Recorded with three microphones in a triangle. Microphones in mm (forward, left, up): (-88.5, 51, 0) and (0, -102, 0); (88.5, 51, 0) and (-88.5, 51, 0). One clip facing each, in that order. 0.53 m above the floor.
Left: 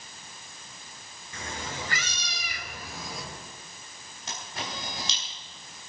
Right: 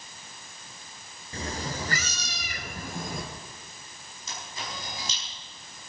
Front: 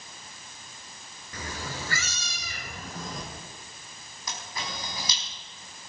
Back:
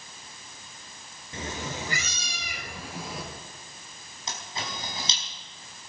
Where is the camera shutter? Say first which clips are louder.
Left 2 dB, back 1 dB; 115° left, 4.5 m.